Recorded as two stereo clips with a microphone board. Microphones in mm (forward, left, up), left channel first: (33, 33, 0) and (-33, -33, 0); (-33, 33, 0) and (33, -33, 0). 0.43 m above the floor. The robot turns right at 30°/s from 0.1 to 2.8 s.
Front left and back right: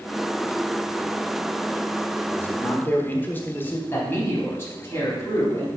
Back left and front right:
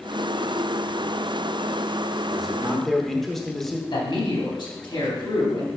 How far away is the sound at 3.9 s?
About 3.5 m.